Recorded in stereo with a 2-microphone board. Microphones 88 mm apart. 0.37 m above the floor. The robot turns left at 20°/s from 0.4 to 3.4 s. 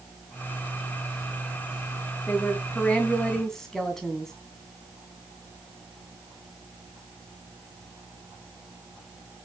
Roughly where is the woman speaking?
Left.